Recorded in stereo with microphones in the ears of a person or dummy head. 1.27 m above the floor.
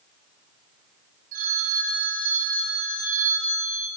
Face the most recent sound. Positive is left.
turn(degrees=-45)  # may be behind; listen again after turning